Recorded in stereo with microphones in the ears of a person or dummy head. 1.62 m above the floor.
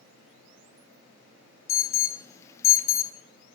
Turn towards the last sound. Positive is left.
turn(degrees=15)  # may be behind; listen again after turning